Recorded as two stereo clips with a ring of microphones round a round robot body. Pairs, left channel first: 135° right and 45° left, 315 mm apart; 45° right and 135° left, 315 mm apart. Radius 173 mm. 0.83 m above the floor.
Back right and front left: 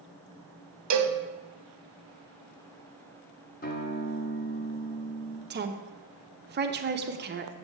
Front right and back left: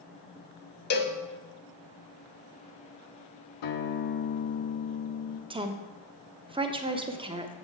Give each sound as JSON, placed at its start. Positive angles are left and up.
{"t": 0.9, "sound": "a cowbell", "azimuth_deg": 15, "distance_m": 0.8}
{"t": 3.6, "sound": "a guitar", "azimuth_deg": -70, "distance_m": 0.8}
{"t": 5.5, "sound": "a woman speaking", "azimuth_deg": 70, "distance_m": 0.8}